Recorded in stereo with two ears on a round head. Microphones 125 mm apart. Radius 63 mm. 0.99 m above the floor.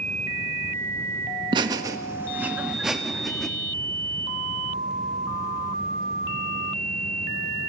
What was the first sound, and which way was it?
Laughter, 30° right (ahead or behind).